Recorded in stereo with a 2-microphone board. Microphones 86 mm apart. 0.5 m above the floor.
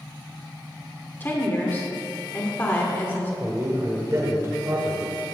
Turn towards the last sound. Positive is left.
turn(degrees=-35)  # may be behind; listen again after turning